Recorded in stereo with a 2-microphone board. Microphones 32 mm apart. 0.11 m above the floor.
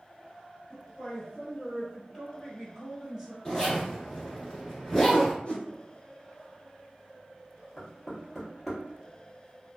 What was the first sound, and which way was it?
A woman speaking, 30° left (ahead or behind).